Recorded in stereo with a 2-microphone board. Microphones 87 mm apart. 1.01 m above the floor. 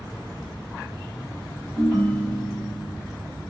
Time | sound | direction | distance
1.8 | a ringtone | 10° left (ahead or behind) | 3.5 m